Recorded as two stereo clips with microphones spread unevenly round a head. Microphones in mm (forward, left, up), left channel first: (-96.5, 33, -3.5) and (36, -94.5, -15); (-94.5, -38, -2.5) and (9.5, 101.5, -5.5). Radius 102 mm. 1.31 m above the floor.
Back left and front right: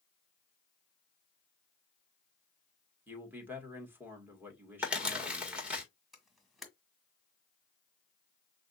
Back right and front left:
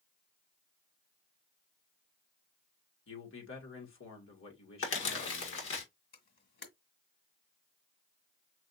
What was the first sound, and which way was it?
A man speaking, 120° right.